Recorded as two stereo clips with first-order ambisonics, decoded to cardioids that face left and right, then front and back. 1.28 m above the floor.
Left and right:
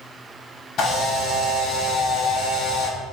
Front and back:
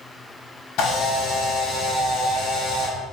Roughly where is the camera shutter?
Ahead left.